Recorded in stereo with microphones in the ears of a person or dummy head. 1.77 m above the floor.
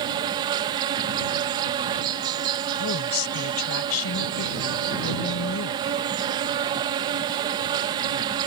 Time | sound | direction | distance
0.0 | an insect | 25° right (ahead or behind) | ?
2.7 | a woman speaking | 90° left | ?